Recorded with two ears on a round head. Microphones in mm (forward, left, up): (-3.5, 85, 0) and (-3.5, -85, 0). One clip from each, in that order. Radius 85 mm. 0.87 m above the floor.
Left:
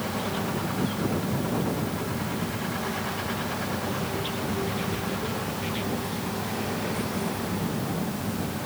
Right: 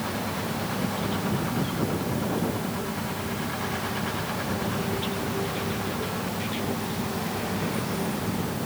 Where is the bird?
No bird in this recording.